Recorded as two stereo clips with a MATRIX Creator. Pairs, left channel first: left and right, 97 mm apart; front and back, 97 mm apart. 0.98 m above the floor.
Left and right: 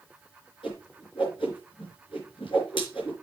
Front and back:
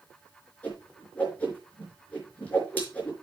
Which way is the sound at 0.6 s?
75° left.